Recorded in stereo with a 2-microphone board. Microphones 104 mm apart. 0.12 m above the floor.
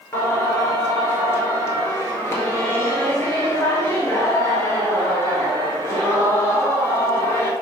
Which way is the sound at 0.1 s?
25° left (ahead or behind).